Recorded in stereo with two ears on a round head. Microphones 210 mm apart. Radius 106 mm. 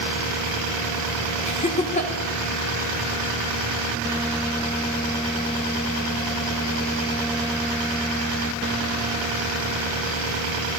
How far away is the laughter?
About 4.5 m.